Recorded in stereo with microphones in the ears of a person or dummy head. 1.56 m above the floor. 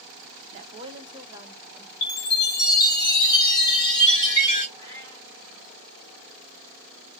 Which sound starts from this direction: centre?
A cat meowing, at 4.8 s.